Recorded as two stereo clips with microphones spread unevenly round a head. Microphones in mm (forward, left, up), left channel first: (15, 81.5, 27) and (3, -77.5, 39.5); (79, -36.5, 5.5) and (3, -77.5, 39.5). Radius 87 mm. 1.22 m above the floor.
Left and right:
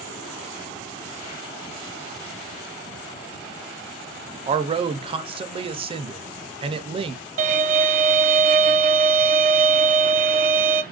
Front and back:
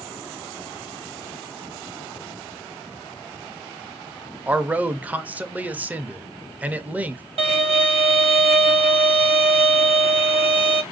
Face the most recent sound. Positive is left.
turn(degrees=-140)